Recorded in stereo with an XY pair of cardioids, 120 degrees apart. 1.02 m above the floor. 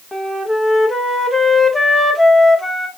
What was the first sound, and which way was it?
A flute, 10° left.